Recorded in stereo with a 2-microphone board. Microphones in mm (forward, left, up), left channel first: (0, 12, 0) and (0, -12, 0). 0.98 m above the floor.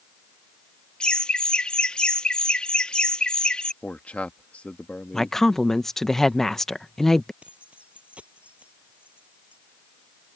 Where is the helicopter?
I don't hear a helicopter.